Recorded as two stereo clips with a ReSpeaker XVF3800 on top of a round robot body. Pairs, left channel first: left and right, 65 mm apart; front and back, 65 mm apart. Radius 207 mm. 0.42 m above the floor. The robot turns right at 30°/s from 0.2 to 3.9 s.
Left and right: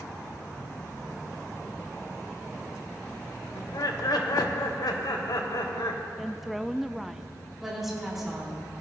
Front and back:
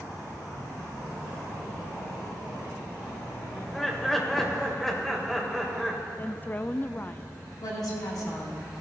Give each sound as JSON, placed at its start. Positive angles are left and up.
{"t": 3.5, "sound": "laughter", "azimuth_deg": 75, "distance_m": 2.0}
{"t": 6.2, "sound": "a woman speaking", "azimuth_deg": -5, "distance_m": 0.7}
{"t": 7.6, "sound": "a woman speaking", "azimuth_deg": -5, "distance_m": 5.5}